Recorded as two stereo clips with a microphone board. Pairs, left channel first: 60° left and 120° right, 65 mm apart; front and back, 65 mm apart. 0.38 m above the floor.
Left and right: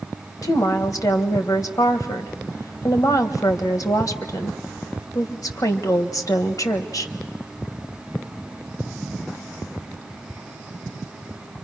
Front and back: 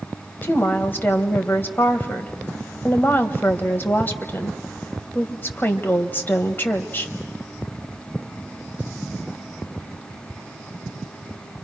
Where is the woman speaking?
55° left, 1.5 m.